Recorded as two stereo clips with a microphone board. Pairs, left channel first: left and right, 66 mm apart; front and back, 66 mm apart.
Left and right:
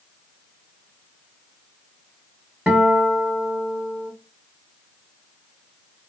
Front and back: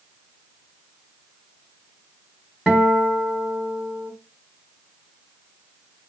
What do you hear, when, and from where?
2.7 s a guitar: 120° right, 1.6 m